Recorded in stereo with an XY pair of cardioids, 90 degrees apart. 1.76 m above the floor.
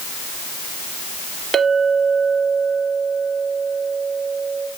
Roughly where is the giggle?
No giggle in this recording.